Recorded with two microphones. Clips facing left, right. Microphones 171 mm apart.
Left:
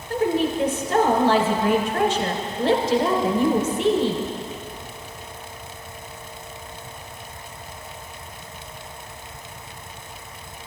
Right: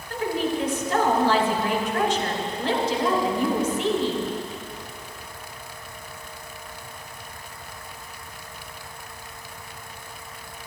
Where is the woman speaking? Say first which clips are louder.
Left 4 dB; 45° left (ahead or behind), 1.9 m.